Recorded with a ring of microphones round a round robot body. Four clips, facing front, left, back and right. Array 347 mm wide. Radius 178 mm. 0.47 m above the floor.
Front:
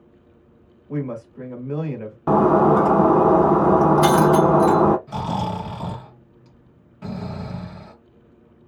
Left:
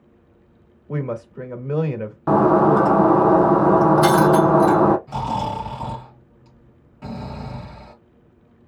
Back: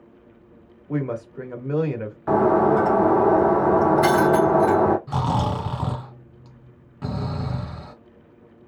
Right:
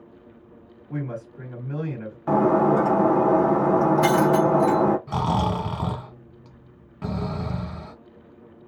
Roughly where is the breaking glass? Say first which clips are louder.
Left 4 dB, front 2 dB; ahead left.